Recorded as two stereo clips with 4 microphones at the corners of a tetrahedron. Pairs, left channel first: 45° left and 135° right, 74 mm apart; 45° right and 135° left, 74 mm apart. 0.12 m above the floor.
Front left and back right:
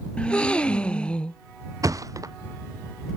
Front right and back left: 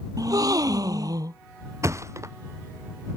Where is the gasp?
120° left.